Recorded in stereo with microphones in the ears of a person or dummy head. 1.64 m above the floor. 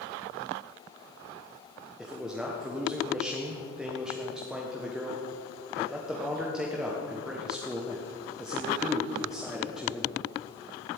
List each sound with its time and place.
2.0 s a man speaking: 5° right (ahead or behind), 1.3 m